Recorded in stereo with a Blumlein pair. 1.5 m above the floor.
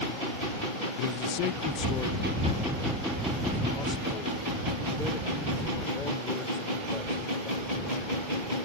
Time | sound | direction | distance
1.0 | a man speaking | 50° left | ?